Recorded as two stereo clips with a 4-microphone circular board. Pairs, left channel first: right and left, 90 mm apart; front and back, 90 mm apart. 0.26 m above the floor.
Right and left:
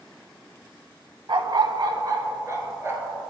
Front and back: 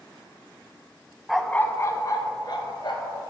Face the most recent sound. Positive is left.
turn(degrees=30)